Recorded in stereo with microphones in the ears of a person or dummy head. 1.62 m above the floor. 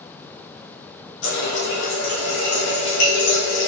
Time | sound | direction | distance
1.2 | a running tap | 65° left (ahead or behind) | 1.6 m